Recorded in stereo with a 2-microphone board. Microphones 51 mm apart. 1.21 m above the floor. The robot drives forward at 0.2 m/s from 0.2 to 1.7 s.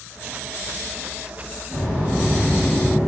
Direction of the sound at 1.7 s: 40° right (ahead or behind).